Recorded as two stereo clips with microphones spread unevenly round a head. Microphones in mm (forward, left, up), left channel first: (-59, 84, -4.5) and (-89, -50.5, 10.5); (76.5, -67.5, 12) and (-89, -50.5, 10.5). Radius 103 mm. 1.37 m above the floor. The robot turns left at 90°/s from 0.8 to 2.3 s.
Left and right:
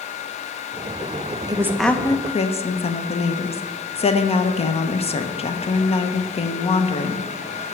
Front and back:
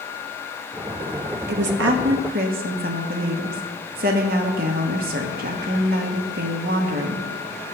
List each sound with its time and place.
1.5 s a woman speaking: 160° right, 1.0 m; by 7.3 s 125° left, 1.0 m